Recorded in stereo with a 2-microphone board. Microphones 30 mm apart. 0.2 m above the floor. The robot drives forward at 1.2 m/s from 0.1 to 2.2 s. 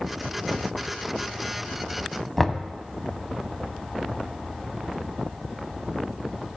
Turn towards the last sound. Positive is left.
turn(degrees=5)  # may be behind; listen again after turning